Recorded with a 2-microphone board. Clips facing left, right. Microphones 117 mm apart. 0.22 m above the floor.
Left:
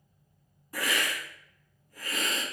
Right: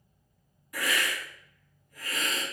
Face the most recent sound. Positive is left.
turn(degrees=30)  # may be behind; listen again after turning